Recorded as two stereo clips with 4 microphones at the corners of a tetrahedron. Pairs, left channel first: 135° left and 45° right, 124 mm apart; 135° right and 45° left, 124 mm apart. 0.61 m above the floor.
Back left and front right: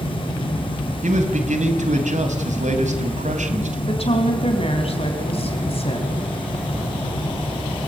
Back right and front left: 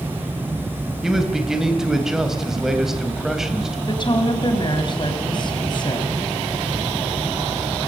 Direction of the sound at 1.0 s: 45° right.